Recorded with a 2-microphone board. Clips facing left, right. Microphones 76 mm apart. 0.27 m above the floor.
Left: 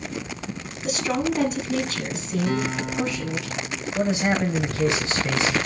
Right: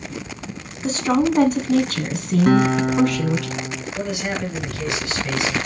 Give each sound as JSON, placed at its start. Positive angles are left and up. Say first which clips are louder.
{"t": 0.8, "sound": "a woman speaking", "louder": "right 6 dB", "side_deg": -40, "distance_m": 2.0}
{"t": 2.5, "sound": "a guitar", "louder": "right 11 dB", "side_deg": -60, "distance_m": 0.8}
{"t": 4.0, "sound": "a man speaking", "louder": "left 4 dB", "side_deg": 25, "distance_m": 1.1}